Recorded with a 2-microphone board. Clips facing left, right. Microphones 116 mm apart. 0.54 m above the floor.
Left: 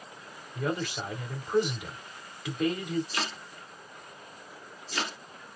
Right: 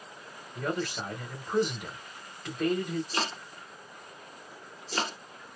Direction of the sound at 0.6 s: 5° left (ahead or behind).